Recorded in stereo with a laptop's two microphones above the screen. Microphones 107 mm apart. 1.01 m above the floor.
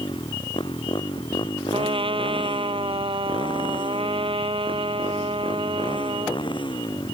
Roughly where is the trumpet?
Right.